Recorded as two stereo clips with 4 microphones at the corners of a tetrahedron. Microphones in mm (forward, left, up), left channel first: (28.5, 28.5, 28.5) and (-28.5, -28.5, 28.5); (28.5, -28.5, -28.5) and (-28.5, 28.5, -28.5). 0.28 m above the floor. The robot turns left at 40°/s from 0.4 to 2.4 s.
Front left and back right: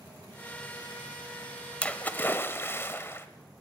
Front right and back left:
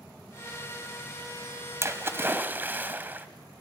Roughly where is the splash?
Left.